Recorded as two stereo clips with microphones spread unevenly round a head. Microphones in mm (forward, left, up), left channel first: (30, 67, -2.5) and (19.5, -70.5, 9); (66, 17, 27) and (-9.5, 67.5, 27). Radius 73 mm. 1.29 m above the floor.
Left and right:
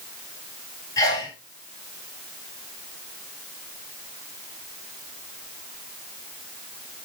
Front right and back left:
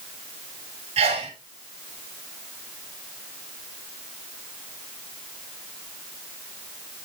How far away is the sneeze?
About 5.5 m.